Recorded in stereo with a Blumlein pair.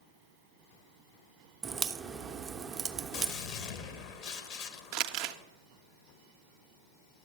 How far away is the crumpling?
About 0.5 m.